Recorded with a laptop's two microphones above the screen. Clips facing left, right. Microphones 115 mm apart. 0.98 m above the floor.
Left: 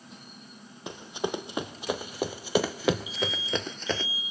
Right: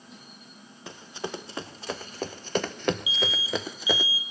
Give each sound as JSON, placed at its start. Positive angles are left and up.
{"t": 0.9, "sound": "running footsteps", "side_deg": 15, "distance_m": 1.9}
{"t": 3.1, "sound": "an alarm", "side_deg": -5, "distance_m": 2.5}